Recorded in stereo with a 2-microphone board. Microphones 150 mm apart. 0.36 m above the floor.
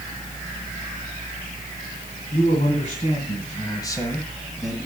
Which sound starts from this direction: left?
A man speaking, at 2.3 s.